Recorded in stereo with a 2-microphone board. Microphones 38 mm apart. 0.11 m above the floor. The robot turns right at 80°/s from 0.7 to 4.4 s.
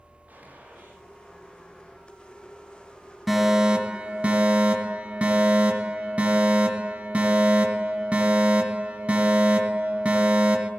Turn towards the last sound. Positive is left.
turn(degrees=-90)